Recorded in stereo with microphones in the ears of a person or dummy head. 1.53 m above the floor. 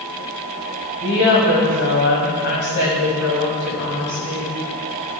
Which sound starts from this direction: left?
A woman speaking, at 1.0 s.